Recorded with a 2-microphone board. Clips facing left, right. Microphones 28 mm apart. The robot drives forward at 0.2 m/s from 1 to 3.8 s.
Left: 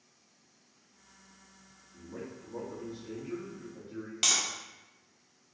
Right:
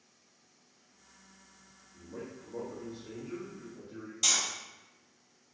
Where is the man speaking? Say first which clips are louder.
Left 1 dB; 60° left (ahead or behind), 1.4 m; by 4.1 s 50° left (ahead or behind), 1.5 m.